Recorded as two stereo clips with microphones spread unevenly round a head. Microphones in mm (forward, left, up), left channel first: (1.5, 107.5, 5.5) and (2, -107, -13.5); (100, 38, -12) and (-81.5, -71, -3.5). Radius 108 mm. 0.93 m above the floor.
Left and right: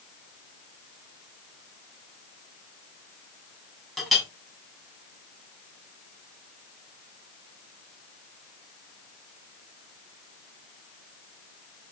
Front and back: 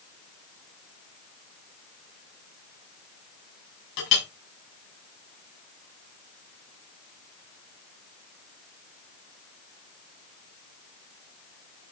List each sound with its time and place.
4.0 s a clink: straight ahead, 5.5 m